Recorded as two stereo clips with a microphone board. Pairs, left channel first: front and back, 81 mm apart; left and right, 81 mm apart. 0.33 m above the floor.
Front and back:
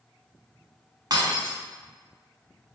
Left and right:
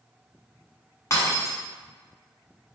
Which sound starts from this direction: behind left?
Breaking glass, at 1.1 s.